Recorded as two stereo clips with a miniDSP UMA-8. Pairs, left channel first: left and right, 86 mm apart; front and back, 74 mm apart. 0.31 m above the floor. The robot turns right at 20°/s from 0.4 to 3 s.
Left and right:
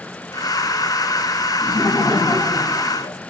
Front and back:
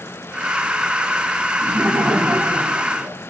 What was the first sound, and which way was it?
Laughter, 105° left.